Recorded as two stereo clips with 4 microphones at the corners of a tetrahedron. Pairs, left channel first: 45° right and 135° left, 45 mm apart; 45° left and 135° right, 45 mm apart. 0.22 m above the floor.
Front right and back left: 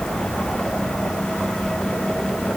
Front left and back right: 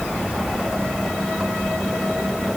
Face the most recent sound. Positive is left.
No sound to turn to.